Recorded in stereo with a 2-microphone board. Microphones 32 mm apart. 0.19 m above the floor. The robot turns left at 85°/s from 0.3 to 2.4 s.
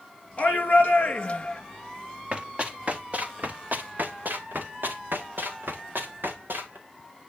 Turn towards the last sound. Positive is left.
turn(degrees=-90)